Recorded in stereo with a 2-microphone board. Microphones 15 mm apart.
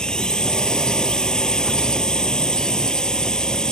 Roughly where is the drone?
Left.